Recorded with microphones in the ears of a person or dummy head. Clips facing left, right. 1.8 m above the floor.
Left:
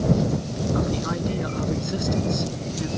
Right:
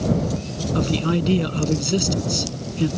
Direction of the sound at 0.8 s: 45° right (ahead or behind).